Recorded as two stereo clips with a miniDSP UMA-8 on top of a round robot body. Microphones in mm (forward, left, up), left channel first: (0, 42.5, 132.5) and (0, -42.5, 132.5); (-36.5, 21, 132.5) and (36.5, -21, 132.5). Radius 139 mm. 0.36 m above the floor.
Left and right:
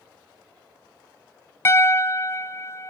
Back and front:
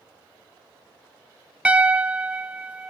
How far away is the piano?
About 0.6 m.